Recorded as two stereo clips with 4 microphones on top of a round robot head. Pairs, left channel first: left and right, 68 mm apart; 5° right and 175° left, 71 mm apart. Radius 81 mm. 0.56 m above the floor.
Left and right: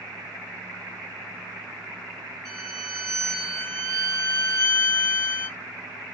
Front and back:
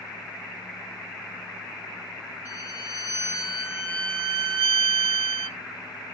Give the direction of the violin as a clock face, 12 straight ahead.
4 o'clock.